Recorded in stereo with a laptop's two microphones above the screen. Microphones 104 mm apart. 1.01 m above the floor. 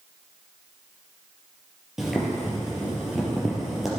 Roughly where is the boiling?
Centre.